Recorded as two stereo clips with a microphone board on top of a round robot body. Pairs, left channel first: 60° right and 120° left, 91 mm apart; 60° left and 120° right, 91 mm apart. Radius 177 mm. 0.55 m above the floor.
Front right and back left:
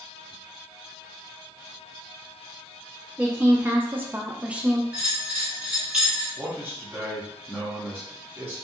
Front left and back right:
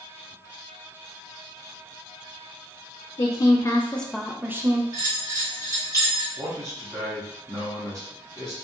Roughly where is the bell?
Behind.